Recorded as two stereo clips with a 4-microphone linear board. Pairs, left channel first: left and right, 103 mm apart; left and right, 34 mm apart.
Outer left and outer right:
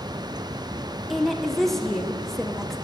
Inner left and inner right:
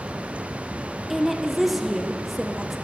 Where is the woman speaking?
Centre (ahead or behind), 0.6 m.